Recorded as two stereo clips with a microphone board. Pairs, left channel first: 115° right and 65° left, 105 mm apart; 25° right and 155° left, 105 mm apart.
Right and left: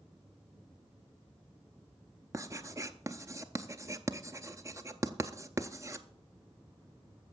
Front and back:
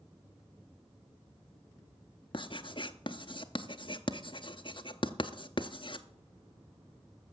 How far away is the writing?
About 0.7 m.